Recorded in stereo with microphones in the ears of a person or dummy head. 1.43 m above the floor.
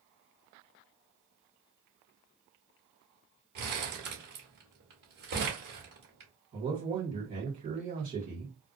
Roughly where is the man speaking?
Right.